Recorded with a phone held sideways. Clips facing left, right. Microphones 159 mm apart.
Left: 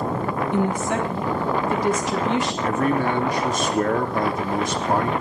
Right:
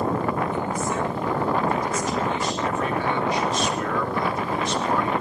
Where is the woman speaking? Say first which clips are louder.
Left 4 dB; 85° left, 3.5 m.